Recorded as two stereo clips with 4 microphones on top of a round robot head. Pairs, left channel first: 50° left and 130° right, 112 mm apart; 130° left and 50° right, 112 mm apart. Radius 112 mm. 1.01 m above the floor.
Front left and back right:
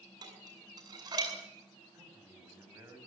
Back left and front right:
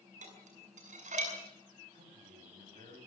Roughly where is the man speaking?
Ahead right.